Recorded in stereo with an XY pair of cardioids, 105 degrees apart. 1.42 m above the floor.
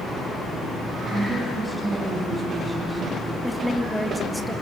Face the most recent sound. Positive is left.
turn(degrees=0)